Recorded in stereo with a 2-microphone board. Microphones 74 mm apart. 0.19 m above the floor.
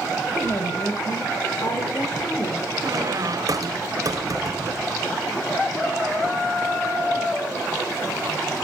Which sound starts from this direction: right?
A squeak, at 2.8 s.